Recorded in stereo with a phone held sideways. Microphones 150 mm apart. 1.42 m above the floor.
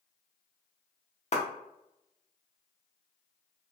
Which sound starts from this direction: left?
A clap, at 1.3 s.